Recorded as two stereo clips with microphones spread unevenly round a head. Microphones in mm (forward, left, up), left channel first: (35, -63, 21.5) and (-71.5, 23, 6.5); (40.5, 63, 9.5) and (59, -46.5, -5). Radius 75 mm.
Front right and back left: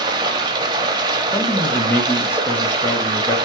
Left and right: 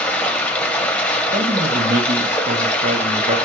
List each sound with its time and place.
0.0 s running water: 130° left, 0.7 m
1.3 s a man speaking: 115° right, 0.9 m